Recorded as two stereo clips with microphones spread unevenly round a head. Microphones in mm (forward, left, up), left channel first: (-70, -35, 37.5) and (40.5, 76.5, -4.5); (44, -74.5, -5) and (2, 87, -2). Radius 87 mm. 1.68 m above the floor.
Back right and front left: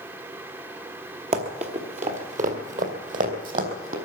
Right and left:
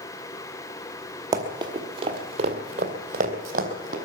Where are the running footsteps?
75° left, 1.8 m; by 4.0 s 85° left, 3 m.